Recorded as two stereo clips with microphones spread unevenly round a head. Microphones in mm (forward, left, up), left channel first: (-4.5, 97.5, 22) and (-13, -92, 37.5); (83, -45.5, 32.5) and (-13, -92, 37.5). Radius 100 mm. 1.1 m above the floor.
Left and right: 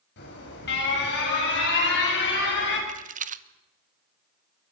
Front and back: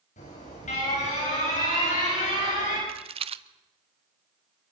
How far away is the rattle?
About 1.1 m.